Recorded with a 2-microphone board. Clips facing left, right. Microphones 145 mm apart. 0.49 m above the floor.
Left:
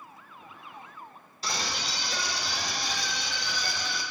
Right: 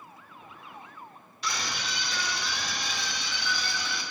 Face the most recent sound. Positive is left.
turn(degrees=40)  # may be behind; listen again after turning